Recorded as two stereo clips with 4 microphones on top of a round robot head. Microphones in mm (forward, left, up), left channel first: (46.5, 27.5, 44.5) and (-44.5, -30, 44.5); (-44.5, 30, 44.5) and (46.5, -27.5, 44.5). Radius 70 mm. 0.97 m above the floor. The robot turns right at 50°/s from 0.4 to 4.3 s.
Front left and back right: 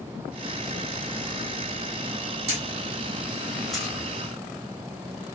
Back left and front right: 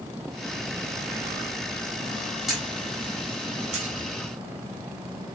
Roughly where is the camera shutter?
Behind right.